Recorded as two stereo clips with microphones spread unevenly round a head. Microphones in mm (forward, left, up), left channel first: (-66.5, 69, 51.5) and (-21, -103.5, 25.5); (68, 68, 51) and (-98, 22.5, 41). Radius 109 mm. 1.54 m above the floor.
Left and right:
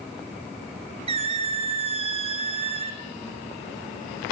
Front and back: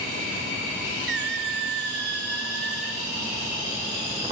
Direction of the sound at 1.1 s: 130° right.